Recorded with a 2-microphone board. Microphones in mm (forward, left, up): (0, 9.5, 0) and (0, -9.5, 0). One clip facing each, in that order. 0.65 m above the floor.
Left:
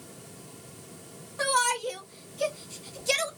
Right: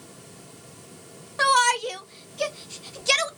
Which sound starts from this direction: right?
A shout, at 1.4 s.